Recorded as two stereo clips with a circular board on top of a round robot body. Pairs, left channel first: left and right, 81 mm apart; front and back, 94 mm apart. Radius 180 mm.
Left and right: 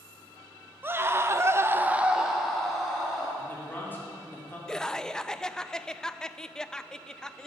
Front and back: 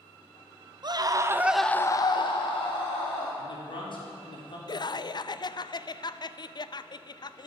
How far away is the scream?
About 1.0 m.